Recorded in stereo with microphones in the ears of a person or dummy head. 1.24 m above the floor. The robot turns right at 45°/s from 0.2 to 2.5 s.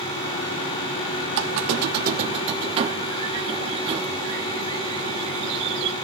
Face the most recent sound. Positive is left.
turn(degrees=-35)